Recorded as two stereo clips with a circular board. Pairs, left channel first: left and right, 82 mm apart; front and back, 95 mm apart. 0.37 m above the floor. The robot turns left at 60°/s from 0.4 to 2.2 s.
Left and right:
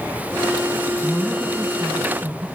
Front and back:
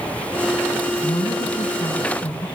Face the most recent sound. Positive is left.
turn(degrees=-50)